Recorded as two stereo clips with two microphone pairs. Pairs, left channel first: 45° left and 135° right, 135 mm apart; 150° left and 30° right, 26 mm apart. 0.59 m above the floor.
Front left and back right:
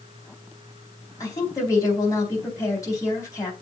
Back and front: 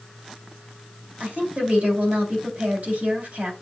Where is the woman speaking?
20° right, 4 m.